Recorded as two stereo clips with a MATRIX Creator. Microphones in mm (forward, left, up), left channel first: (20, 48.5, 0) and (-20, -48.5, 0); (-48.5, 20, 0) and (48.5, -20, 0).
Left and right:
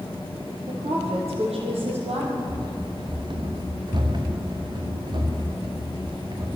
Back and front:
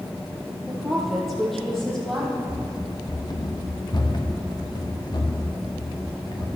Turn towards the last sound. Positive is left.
turn(degrees=-155)